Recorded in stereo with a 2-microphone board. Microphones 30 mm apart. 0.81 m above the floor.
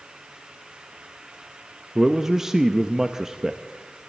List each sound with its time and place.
1.9 s a man speaking: 20° right (ahead or behind), 0.6 m